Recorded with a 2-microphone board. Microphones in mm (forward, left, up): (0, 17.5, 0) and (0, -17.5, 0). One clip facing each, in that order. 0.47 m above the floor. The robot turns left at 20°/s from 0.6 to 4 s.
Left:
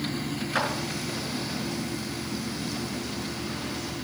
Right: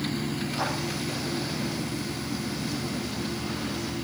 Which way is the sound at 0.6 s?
80° left.